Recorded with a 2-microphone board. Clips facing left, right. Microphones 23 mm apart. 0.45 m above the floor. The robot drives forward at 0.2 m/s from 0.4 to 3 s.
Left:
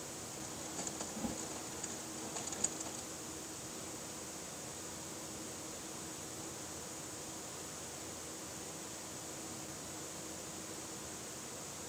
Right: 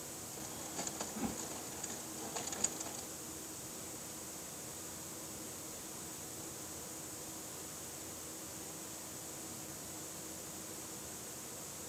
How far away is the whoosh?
About 0.9 m.